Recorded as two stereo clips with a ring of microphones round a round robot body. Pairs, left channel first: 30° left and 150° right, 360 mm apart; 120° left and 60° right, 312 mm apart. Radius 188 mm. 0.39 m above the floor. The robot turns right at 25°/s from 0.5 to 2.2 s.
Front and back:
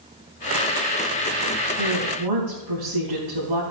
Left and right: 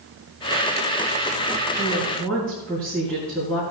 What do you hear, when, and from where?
1.8 s a woman speaking: 165° right, 4 m; by 3.6 s 155° right, 4 m